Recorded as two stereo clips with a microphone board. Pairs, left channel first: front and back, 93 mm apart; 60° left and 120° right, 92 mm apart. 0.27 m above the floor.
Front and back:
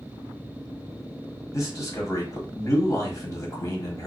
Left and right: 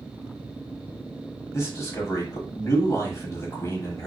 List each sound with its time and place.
1.5 s a man speaking: 25° left, 1.1 m